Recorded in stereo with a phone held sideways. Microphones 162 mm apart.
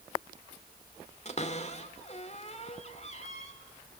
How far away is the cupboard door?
About 2.5 m.